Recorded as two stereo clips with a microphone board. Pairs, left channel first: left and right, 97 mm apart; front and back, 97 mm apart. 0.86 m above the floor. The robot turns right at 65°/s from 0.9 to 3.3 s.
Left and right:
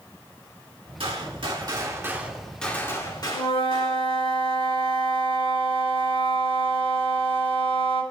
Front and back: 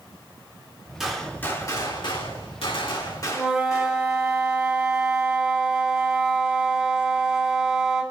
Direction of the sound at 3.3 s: 100° left.